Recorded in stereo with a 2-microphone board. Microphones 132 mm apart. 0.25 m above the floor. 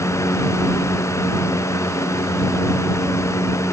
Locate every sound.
Only background noise.